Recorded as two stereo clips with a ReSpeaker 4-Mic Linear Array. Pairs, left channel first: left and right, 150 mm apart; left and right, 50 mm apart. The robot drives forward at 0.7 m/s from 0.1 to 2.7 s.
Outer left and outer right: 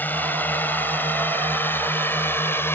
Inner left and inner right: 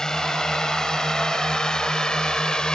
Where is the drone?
10° left (ahead or behind); by 2.8 s 15° left (ahead or behind).